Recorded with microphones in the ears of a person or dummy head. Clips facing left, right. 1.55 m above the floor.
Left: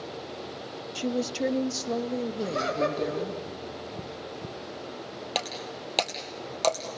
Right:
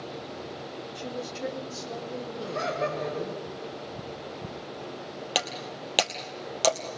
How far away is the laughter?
About 9 m.